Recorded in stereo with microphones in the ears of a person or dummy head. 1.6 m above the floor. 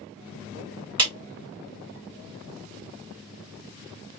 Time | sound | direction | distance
1.0 | a clap | 25° right (ahead or behind) | 1.0 m